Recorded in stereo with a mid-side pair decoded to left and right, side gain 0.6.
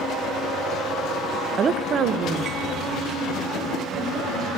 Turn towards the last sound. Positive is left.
turn(degrees=-55)